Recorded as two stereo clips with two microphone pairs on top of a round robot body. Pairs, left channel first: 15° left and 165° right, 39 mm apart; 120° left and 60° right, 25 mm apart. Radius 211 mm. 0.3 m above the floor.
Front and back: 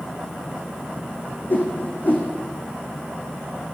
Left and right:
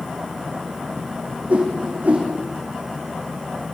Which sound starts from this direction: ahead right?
A whoosh, at 1.5 s.